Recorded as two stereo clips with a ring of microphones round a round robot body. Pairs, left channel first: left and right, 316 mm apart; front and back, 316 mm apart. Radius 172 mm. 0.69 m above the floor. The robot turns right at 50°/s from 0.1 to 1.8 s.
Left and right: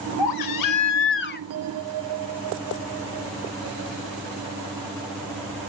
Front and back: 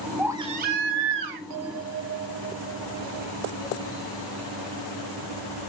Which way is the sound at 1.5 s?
140° right.